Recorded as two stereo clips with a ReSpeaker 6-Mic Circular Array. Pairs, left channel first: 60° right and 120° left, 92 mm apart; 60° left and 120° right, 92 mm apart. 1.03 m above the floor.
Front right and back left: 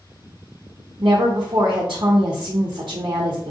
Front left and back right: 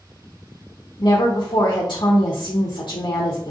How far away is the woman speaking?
About 0.5 m.